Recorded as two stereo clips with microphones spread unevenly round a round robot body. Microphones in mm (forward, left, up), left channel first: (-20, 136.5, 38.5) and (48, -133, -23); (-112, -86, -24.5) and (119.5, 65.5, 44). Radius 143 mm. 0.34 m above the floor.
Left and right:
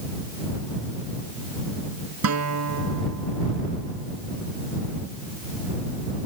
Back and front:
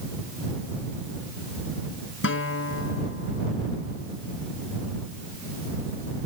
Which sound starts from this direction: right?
A guitar, at 2.2 s.